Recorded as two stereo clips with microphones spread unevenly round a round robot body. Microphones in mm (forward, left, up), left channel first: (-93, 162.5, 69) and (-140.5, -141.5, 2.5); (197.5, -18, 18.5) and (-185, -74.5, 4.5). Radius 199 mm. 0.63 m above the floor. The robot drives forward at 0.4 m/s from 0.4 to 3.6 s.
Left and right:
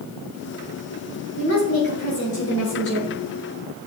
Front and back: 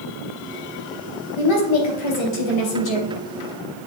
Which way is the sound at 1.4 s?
20° left.